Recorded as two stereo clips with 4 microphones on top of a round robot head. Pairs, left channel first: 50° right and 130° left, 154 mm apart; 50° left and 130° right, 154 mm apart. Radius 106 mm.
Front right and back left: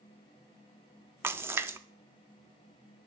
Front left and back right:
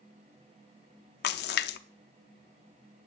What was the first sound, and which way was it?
A splash, 55° left.